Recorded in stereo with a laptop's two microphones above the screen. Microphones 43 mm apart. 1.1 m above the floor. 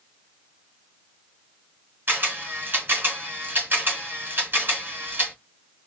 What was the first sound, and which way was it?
A camera shutter, 55° right (ahead or behind).